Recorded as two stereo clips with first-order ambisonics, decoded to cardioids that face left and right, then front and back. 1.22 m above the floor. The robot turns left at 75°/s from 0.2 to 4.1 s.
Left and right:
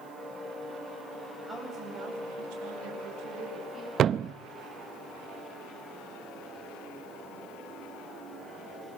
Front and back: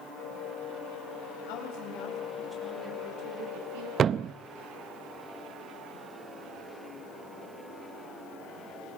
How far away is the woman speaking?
About 7.5 m.